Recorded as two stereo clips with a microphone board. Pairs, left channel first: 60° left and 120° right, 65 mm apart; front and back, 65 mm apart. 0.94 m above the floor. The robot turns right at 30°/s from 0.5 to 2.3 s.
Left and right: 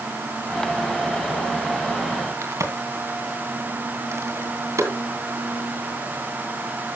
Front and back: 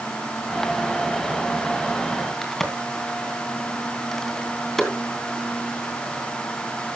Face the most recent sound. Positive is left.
turn(degrees=-85)